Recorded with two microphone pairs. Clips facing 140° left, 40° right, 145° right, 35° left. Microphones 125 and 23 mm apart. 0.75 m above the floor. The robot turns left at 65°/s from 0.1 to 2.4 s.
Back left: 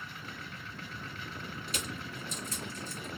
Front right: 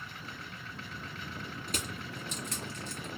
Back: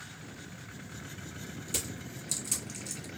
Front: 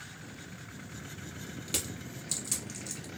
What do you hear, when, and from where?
1.7 s crushing: 5° left, 1.8 m; by 3.1 s 45° right, 1.8 m